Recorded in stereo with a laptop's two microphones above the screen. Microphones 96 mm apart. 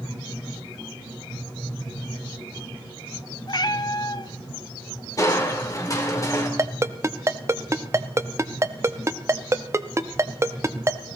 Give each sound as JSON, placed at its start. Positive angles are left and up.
{"t": 3.5, "sound": "a cat meowing", "side_deg": 45, "distance_m": 0.6}
{"t": 5.2, "sound": "crushing", "side_deg": 35, "distance_m": 2.0}
{"t": 6.6, "sound": "a ringtone", "side_deg": -30, "distance_m": 0.8}